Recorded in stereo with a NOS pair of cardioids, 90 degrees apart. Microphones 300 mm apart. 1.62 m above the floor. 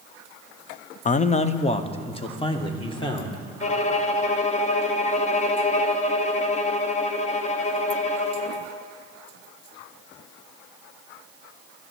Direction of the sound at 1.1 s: 25° left.